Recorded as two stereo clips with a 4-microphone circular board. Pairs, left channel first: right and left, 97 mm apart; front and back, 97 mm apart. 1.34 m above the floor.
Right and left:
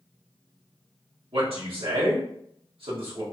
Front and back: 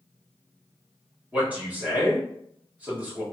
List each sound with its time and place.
1.3 s a man speaking: 105° left, 1.6 m